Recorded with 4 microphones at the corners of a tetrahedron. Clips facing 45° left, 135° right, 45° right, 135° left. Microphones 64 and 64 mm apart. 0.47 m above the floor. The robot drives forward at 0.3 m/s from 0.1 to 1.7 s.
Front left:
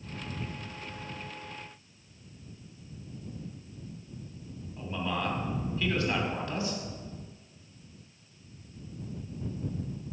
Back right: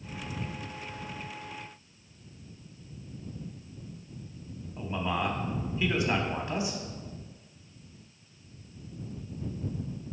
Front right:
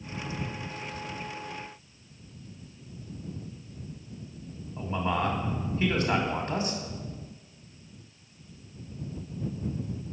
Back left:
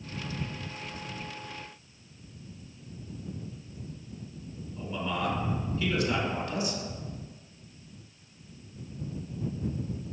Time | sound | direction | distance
4.8 | a man speaking | 70° right | 1.1 m